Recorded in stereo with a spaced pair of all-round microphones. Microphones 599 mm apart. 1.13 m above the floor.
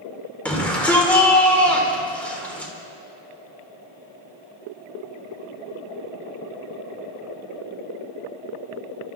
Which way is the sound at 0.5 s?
Centre (ahead or behind).